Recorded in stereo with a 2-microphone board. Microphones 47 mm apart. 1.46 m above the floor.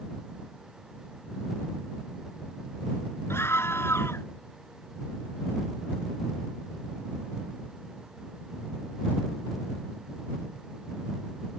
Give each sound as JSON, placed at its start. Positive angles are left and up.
{"t": 3.3, "sound": "a scream", "side_deg": 60}